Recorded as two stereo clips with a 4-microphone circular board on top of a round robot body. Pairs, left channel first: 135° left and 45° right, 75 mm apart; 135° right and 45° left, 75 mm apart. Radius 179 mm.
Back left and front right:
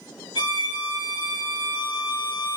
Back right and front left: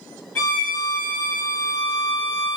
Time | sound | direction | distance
0.3 | a violin | 165° left | 1.2 m